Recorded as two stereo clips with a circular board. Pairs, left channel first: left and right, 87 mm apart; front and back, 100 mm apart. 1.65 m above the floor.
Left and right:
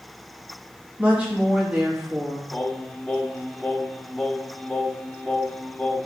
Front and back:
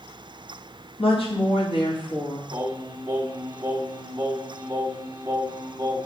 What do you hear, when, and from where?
1.0 s a woman speaking: 15° right, 2.5 m
2.5 s singing: 145° left, 1.3 m